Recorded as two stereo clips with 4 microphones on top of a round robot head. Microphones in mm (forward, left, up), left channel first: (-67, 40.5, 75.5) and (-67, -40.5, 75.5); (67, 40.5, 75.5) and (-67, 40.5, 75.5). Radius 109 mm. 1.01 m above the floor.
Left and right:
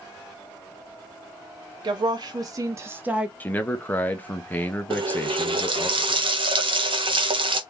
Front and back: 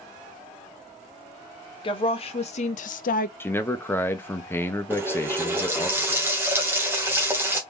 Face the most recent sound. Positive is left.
turn(degrees=-105)